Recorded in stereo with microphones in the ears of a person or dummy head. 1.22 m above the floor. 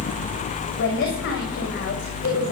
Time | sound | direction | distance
0.8 | a woman speaking | 65° left (ahead or behind) | 6.5 m